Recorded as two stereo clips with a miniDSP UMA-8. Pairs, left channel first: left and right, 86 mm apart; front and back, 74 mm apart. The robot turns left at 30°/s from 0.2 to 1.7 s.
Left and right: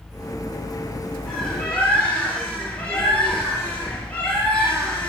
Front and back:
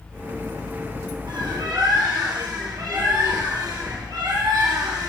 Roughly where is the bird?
Behind.